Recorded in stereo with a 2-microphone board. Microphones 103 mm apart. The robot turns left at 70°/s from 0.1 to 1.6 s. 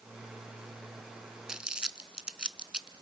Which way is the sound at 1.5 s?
5° right (ahead or behind).